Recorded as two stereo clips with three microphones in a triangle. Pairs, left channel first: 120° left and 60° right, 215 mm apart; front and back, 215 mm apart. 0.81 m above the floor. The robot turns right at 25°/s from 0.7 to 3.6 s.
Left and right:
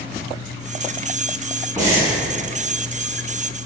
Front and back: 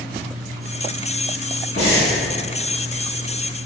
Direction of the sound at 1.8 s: 15° left.